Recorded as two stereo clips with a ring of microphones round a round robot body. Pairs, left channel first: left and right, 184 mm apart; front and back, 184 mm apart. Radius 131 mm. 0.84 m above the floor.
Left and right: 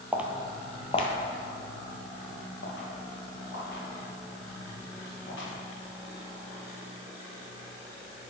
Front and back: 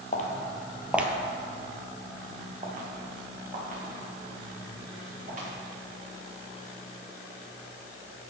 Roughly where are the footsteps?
Ahead.